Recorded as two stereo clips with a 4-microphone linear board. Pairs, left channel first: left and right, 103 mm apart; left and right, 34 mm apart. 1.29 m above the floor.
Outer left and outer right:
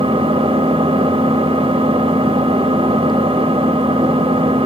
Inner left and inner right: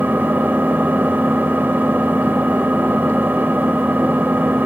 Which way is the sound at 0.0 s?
65° right (ahead or behind).